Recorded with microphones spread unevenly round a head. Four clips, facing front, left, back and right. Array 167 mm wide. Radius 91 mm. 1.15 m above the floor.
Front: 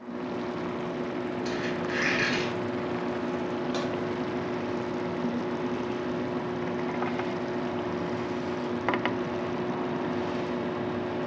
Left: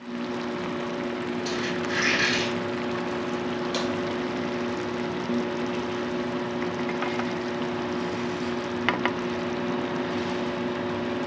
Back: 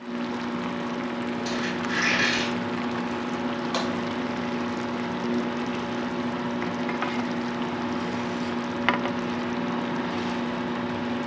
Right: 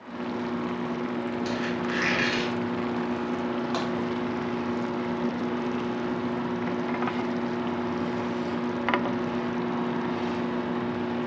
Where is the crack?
150° right, 1.7 m.